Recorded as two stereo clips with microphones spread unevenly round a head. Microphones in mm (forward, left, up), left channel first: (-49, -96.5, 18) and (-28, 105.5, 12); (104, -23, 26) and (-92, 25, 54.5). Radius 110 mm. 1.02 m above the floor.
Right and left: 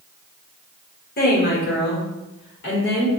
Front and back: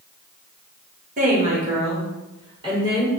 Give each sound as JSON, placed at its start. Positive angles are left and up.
{"t": 1.2, "sound": "a woman speaking", "azimuth_deg": -140, "distance_m": 1.4}